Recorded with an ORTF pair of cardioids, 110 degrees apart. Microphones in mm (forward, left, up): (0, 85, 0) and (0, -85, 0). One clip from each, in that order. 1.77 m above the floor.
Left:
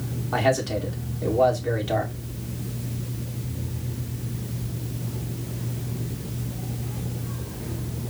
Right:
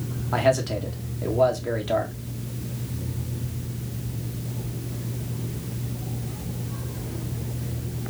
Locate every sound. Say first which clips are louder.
0.3 s a man speaking: right 1 dB; 10° right, 1.9 m